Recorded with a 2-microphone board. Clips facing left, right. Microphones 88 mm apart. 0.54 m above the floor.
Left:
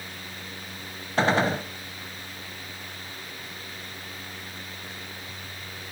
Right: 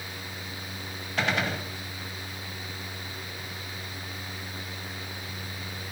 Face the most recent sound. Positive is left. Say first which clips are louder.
# left 6 dB
turn(degrees=30)  # may be behind; listen again after turning